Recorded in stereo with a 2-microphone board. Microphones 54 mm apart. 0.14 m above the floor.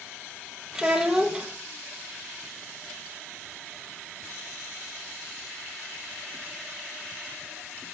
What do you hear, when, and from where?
0.8 s a child speaking: 10° right (ahead or behind), 2.5 m